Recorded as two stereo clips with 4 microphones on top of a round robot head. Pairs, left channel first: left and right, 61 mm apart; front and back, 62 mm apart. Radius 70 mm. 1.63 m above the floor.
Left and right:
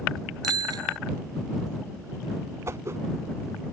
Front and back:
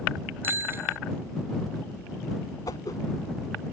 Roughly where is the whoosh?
Ahead right.